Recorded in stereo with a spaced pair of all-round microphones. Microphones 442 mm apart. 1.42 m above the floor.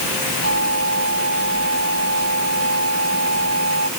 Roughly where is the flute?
Right.